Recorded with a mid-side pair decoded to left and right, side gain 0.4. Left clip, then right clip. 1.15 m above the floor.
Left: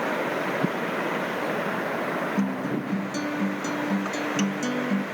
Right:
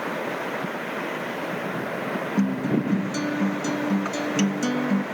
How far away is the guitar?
About 1.0 m.